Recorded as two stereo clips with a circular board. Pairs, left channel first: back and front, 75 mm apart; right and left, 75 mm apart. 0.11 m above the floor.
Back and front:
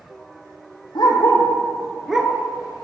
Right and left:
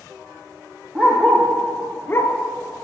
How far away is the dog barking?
About 1.6 m.